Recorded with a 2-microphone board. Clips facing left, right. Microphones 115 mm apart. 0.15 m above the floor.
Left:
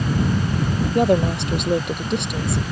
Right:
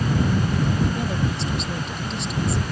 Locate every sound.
0.9 s a woman speaking: 65° left (ahead or behind)